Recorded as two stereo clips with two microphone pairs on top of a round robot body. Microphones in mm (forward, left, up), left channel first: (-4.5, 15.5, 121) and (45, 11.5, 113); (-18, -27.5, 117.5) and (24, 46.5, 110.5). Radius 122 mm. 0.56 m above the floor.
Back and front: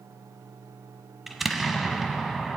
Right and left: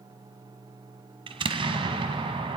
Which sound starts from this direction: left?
An explosion, at 1.3 s.